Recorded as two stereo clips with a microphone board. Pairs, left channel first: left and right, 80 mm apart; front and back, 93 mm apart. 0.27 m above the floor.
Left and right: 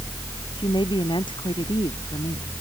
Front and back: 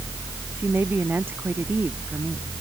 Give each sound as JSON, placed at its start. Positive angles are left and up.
{"t": 0.6, "sound": "a woman speaking", "azimuth_deg": 110}